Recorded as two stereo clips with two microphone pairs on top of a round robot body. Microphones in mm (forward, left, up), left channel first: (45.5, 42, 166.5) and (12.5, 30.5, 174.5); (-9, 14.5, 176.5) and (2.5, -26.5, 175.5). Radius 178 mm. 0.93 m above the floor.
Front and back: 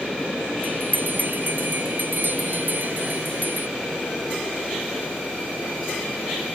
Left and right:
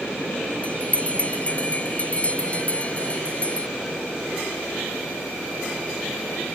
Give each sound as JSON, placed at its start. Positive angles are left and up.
{"t": 0.6, "sound": "a bell", "azimuth_deg": 165}